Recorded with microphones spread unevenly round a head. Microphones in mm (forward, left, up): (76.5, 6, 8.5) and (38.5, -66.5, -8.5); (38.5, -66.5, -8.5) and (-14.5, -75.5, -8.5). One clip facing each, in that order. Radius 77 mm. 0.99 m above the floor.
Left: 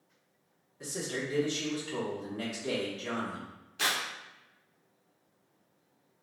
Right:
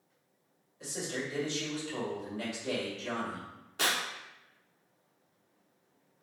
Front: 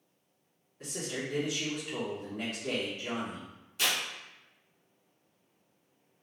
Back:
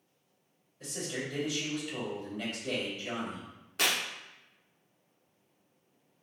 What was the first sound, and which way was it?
A man speaking, 25° left.